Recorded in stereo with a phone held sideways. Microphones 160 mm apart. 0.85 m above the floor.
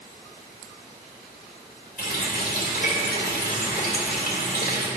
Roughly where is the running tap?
Left.